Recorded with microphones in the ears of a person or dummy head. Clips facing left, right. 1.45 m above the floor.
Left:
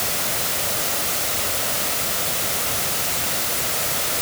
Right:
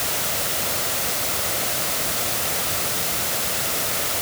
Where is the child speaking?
No child speaking in this recording.